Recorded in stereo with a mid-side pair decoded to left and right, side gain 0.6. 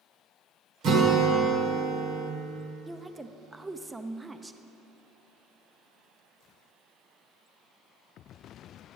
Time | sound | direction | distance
0.8 | a guitar | 60° right | 1.5 m
2.9 | a woman speaking | 15° right | 0.6 m